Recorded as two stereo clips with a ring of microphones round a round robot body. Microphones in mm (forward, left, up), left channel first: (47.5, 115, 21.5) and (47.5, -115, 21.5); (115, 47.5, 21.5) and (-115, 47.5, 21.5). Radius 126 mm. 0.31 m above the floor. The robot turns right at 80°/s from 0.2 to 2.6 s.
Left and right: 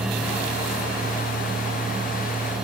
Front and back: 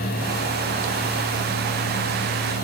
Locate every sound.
Only background noise.